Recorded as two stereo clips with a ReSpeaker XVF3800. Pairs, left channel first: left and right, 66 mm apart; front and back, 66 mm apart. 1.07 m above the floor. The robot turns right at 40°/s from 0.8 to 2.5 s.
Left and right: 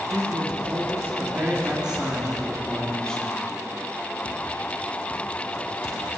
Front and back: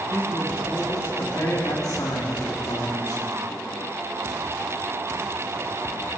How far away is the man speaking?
About 3 m.